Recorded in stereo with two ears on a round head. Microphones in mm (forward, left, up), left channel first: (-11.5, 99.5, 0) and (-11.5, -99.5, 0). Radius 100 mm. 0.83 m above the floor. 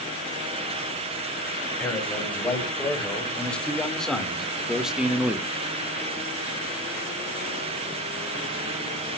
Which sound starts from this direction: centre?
A man speaking, at 1.8 s.